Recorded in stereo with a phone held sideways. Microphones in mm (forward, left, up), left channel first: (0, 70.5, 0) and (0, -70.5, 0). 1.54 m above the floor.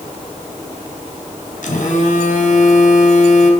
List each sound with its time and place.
1.6 s a phone buzzing: 65° left (ahead or behind), 3 m